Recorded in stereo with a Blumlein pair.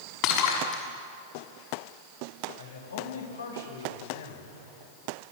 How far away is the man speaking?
About 5.5 m.